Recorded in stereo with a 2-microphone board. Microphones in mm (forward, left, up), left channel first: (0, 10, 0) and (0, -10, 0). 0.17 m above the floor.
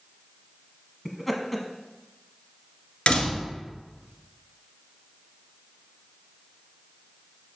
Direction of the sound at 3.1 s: 60° left (ahead or behind).